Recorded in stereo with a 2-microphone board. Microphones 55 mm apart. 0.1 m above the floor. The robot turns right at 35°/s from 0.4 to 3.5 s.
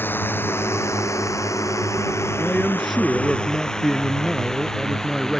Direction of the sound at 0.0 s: 40° left (ahead or behind).